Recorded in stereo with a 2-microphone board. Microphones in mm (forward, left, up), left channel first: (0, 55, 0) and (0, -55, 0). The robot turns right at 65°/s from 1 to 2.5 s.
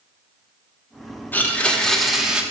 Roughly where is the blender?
Centre.